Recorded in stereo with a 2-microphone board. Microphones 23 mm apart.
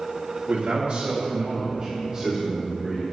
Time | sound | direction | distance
0.5 | a man speaking | 75° right (ahead or behind) | 2.5 m